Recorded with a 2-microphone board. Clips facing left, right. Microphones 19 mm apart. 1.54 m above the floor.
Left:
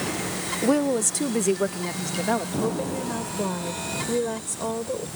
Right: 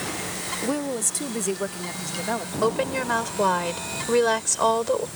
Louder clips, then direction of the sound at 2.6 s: Right 3 dB; 65° right (ahead or behind).